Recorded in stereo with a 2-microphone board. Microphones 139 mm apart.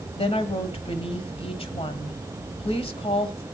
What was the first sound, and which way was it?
A woman speaking, 45° left (ahead or behind).